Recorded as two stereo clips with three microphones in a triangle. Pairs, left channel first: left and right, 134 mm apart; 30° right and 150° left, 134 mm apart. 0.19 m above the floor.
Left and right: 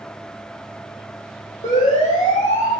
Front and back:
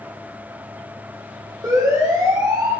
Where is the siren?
85° left, 8 m; by 2.7 s 95° left, 7 m.